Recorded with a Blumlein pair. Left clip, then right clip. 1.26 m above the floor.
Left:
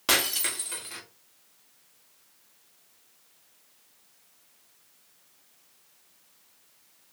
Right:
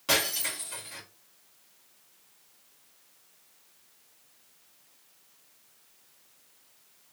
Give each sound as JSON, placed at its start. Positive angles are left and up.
{"t": 0.1, "sound": "breaking glass", "azimuth_deg": 65, "distance_m": 1.7}